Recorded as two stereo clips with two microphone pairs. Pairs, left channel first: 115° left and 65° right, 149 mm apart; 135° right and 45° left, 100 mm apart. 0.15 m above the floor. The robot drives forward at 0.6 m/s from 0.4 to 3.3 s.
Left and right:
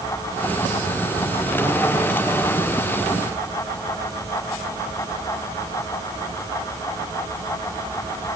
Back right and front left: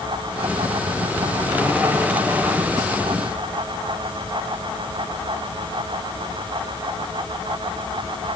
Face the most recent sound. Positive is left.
No sound to turn to.